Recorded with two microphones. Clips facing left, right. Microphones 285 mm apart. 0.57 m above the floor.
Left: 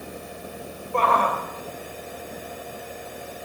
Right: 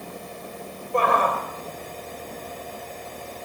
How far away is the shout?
About 3 m.